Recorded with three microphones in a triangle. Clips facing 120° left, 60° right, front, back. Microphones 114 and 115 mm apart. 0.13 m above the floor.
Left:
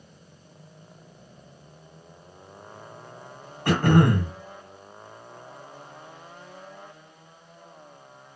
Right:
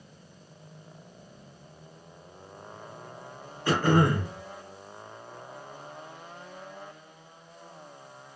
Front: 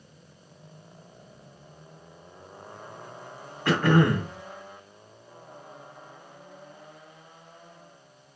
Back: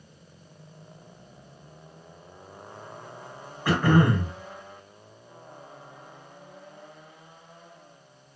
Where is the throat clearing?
105° left, 1.2 m.